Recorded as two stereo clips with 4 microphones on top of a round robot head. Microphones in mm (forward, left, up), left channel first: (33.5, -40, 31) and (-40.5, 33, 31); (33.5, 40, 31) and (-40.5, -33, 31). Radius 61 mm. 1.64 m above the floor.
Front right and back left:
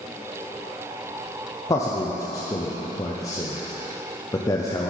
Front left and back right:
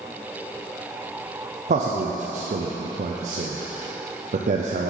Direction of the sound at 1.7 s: 110° right.